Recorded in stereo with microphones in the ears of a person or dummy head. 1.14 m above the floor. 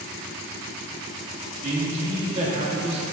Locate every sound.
1.6 s a man speaking: 35° right (ahead or behind), 2 m